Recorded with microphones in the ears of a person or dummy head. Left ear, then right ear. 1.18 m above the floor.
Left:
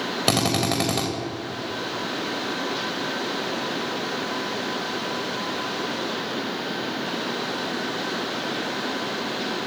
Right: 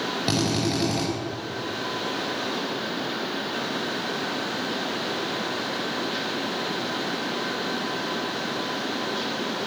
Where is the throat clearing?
I don't hear throat clearing.